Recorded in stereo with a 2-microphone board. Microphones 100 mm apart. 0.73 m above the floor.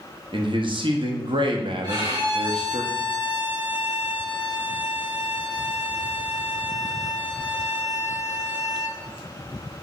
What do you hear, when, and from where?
0.3 s a man speaking: 55° right (ahead or behind), 0.7 m
1.8 s a violin: 40° right (ahead or behind), 2 m